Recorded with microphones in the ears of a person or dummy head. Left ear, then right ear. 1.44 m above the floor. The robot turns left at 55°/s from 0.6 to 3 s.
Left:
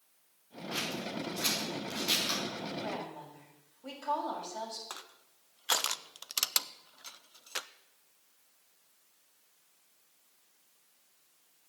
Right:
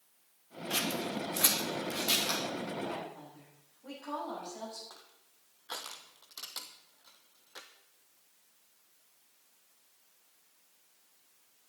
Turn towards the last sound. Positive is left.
turn(degrees=70)  # may be behind; listen again after turning